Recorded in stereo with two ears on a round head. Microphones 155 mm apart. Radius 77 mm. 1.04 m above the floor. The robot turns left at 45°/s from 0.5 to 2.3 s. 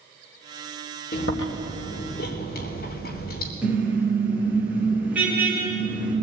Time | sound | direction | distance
1.1 | chewing | 115° left | 3.5 m
3.6 | a car horn | 10° right (ahead or behind) | 9.5 m